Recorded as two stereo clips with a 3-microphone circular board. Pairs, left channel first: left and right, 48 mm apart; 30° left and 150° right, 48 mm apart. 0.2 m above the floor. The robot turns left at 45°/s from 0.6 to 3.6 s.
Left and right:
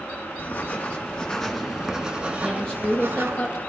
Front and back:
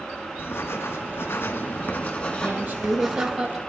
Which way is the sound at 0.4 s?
50° left.